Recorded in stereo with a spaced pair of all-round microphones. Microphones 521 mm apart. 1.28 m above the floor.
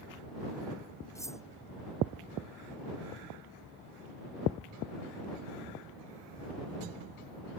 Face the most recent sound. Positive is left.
turn(degrees=5)  # may be behind; listen again after turning